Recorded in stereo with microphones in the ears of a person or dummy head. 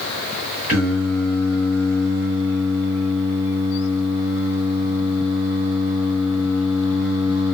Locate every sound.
0.7 s singing: 5° right (ahead or behind), 1.5 m